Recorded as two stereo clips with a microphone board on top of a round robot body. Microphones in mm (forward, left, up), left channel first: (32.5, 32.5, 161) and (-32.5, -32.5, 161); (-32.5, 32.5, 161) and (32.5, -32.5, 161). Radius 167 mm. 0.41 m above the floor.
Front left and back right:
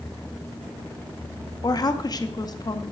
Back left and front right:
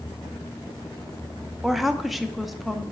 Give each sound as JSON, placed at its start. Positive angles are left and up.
{"t": 1.6, "sound": "a woman speaking", "azimuth_deg": 45, "distance_m": 0.9}